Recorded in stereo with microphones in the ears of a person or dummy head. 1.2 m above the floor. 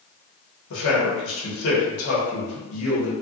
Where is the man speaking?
70° left (ahead or behind), 1.1 m.